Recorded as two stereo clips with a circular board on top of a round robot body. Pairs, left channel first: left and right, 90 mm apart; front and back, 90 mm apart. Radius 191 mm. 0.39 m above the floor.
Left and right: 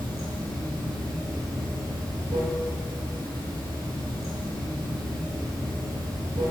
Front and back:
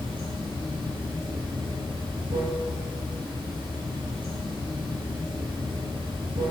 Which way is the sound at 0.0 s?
140° right.